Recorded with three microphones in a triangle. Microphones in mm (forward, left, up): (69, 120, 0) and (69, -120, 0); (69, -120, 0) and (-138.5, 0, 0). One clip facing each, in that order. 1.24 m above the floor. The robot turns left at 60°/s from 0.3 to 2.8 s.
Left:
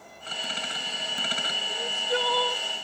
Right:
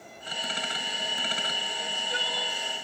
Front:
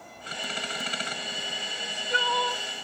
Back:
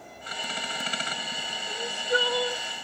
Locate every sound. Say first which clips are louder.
1.7 s crying: left 8 dB, back 9 dB; 135° left; by 2.6 s 80° left